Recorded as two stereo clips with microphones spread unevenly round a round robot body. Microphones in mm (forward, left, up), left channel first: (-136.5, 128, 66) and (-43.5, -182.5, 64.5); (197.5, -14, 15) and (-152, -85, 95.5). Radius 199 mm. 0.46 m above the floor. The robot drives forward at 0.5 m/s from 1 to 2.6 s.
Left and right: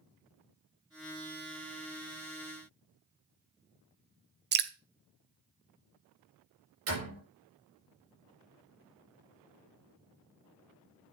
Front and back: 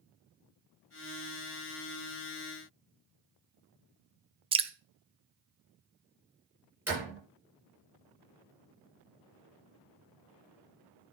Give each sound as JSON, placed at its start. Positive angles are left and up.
{"t": 4.5, "sound": "dripping", "azimuth_deg": -85, "distance_m": 0.8}
{"t": 6.9, "sound": "a door slam", "azimuth_deg": -85, "distance_m": 8.0}